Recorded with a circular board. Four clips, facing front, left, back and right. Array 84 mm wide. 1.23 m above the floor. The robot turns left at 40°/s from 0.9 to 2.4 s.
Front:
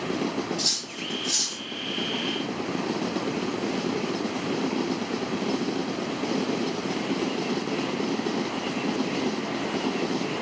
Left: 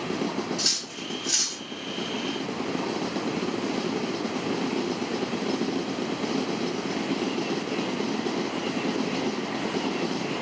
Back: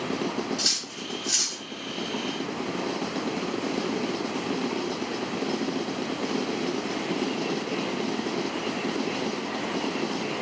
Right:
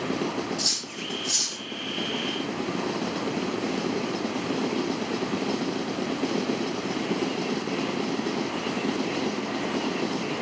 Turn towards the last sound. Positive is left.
turn(degrees=85)